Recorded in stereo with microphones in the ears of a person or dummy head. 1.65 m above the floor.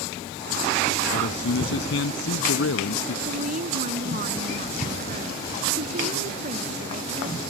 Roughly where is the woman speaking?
Right.